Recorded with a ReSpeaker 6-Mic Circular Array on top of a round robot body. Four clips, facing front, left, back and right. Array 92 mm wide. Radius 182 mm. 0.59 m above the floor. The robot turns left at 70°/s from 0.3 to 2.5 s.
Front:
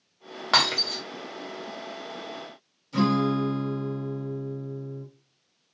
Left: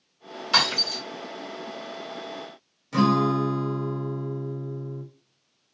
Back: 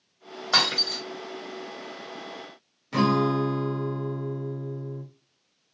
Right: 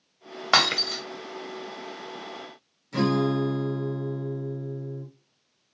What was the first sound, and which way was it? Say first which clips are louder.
Breaking glass: right 2 dB, front 2 dB; 70° right.